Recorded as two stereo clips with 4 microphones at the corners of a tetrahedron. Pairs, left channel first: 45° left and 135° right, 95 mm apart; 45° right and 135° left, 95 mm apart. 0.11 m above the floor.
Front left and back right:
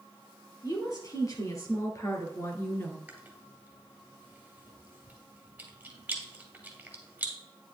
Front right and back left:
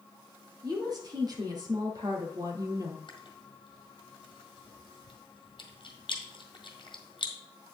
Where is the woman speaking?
90° left, 3 m; by 3.0 s 105° left, 1.5 m.